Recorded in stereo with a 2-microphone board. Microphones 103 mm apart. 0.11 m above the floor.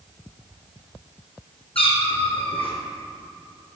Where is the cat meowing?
65° left (ahead or behind), 1.6 m.